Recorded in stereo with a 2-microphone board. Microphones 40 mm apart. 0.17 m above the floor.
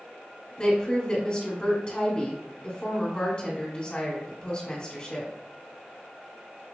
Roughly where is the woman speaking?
Left.